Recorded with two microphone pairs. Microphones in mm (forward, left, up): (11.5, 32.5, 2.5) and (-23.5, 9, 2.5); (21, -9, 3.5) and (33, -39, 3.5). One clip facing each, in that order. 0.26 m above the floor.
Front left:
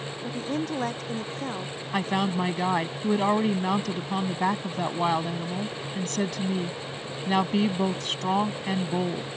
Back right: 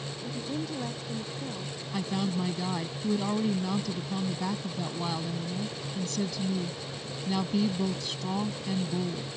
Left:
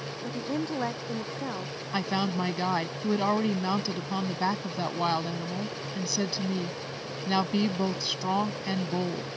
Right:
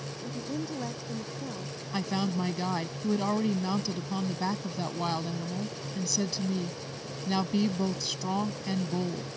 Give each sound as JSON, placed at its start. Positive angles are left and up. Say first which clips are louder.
{"t": 0.2, "sound": "a woman speaking", "louder": "front left 5 dB, left 4 dB", "azimuth_deg": 70}
{"t": 1.9, "sound": "a woman speaking", "louder": "front left 5 dB, left 2 dB", "azimuth_deg": 50}